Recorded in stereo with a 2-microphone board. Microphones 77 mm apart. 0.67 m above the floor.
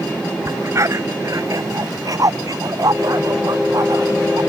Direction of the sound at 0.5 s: 40° right (ahead or behind).